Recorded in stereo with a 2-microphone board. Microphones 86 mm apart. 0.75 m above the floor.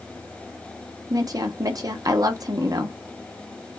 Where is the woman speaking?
45° right (ahead or behind), 0.9 m.